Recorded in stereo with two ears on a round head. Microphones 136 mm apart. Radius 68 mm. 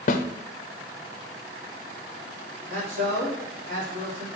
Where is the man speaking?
55° right (ahead or behind), 3.5 m.